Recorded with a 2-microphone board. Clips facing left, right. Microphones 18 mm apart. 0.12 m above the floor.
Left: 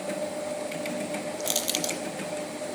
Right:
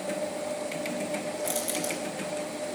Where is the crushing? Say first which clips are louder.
Left 2 dB; 65° left (ahead or behind), 0.7 m.